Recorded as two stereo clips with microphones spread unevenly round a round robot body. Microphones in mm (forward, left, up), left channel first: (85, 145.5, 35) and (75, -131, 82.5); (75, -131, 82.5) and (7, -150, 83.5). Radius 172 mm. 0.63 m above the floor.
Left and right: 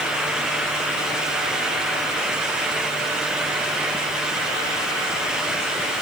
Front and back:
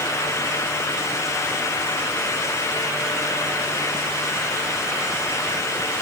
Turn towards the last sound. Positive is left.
No sound to turn to.